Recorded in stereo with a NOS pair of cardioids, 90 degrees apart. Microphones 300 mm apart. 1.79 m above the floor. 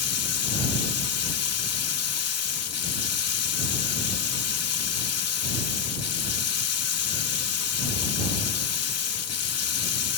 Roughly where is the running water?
Ahead left.